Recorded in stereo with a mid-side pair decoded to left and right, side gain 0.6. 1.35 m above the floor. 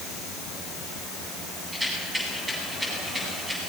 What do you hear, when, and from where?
1.7 s a rattle: 15° right, 9 m